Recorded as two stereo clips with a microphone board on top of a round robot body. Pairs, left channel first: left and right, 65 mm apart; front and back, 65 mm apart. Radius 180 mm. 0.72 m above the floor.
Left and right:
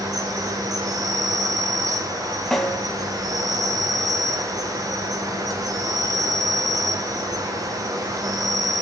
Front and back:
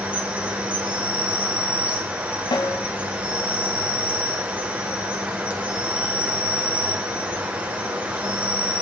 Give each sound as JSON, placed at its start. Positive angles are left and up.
{"t": 0.0, "sound": "an insect", "azimuth_deg": -110, "distance_m": 5.5}
{"t": 2.5, "sound": "a snare drum", "azimuth_deg": 10, "distance_m": 1.7}